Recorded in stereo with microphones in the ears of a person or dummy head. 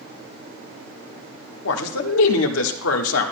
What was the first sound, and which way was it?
A man speaking, 85° left.